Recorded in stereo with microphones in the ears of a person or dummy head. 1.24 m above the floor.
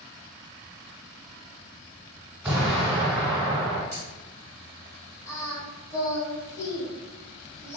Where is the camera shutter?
15° right (ahead or behind), 1.2 m.